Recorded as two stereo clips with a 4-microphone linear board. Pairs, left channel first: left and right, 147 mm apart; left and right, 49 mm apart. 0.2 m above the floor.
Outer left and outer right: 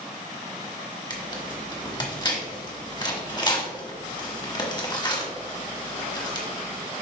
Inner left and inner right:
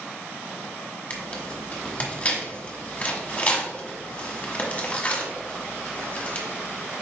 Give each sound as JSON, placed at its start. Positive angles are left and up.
{"t": 1.1, "sound": "tearing paper", "side_deg": 30, "distance_m": 1.4}